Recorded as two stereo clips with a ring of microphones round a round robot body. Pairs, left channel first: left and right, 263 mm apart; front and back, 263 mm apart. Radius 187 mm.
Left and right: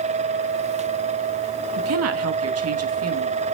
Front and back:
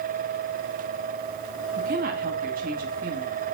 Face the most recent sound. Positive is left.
turn(degrees=-115)